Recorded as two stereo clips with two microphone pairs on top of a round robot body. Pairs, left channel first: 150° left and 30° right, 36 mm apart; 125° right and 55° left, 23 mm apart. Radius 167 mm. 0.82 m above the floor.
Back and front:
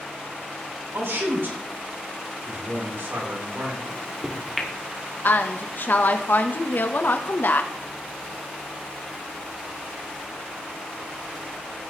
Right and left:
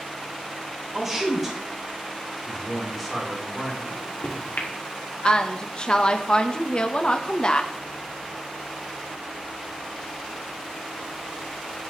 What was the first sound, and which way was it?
A man speaking, 25° right.